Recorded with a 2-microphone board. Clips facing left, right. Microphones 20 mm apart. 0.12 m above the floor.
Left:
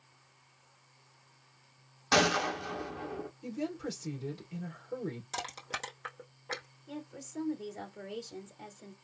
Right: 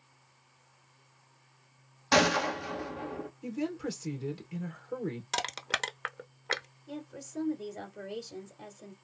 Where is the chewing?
I don't hear chewing.